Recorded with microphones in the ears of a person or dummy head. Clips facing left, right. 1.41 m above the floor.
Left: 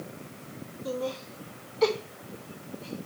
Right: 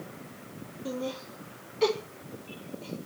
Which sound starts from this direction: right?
Laughter, at 0.8 s.